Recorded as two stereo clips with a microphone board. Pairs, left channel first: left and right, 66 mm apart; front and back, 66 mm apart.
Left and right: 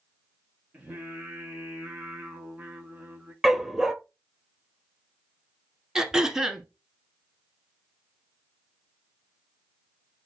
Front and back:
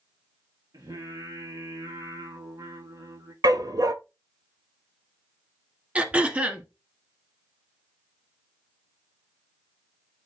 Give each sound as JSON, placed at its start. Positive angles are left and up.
{"t": 0.7, "sound": "singing", "azimuth_deg": -160, "distance_m": 2.5}
{"t": 3.4, "sound": "a dog barking", "azimuth_deg": -175, "distance_m": 0.8}
{"t": 6.0, "sound": "throat clearing", "azimuth_deg": -155, "distance_m": 1.3}